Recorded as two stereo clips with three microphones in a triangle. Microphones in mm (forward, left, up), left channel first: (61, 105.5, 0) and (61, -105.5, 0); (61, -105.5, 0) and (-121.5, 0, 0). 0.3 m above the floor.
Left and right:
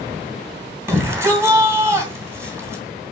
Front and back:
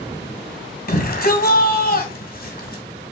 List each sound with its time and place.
0.9 s a shout: 15° right, 2.5 m